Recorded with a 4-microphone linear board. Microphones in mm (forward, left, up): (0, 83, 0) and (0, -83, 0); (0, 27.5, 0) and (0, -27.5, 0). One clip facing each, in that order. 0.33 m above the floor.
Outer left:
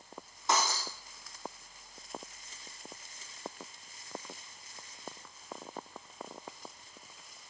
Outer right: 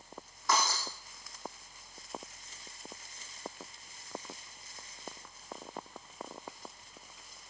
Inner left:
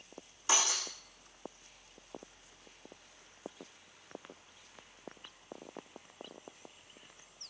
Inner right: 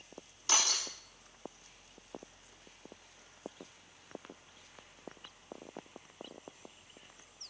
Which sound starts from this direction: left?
Breaking glass, at 0.5 s.